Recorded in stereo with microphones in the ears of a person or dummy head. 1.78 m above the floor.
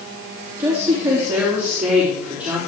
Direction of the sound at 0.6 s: 10° right (ahead or behind).